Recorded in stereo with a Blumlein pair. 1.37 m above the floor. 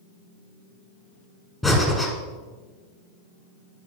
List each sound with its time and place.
1.6 s breathing: straight ahead, 1.4 m